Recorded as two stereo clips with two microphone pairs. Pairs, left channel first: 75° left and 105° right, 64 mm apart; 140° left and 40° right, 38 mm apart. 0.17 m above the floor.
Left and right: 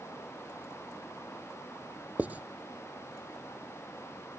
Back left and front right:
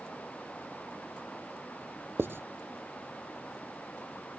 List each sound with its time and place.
2.2 s writing: 40° right